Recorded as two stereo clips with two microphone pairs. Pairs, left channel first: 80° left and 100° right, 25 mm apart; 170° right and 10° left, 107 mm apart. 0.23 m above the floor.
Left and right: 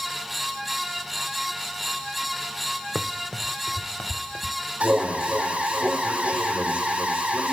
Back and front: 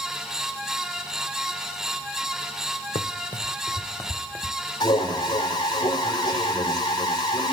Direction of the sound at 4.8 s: 120° right.